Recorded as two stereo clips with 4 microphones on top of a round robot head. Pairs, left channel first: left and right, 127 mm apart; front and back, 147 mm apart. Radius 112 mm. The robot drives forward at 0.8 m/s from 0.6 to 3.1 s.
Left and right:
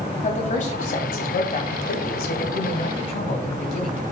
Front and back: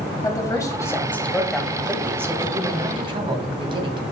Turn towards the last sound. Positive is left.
turn(degrees=125)